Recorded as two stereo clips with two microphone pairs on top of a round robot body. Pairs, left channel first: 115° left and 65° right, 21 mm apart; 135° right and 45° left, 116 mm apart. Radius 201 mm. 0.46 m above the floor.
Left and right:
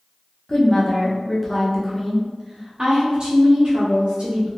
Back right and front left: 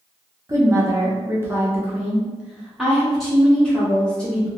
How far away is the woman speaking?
About 1.3 m.